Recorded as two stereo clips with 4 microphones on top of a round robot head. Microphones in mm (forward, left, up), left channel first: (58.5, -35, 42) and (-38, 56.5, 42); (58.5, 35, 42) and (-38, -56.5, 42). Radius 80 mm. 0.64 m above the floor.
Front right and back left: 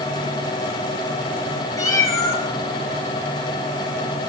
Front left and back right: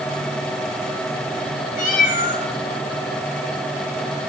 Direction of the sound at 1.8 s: 20° left.